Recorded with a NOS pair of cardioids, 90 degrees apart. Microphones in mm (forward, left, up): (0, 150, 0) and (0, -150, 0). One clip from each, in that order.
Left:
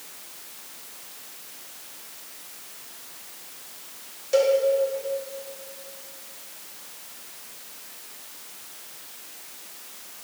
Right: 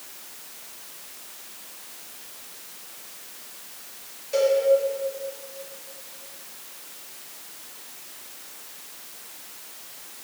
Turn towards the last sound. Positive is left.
turn(degrees=35)